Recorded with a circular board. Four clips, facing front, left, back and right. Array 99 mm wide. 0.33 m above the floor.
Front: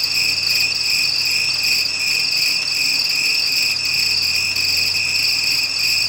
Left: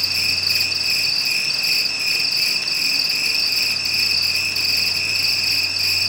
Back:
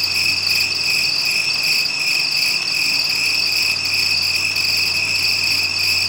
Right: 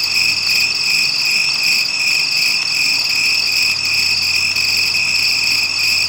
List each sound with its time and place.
0.0 s an insect: 100° right, 3 m